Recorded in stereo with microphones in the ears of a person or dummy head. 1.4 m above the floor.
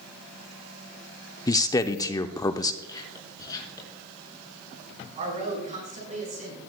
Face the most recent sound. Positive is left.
turn(degrees=-40)  # may be behind; listen again after turning